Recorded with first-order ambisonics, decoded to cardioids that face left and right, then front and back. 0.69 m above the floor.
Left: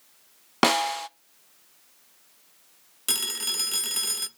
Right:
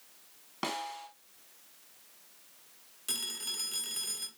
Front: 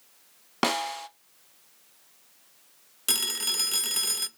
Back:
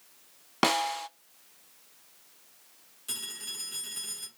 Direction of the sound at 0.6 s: 90° left.